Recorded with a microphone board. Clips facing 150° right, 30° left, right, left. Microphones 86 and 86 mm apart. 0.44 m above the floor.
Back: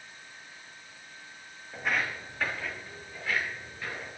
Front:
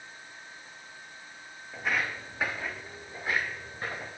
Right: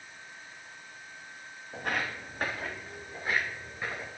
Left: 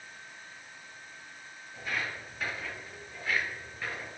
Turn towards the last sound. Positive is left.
turn(degrees=-15)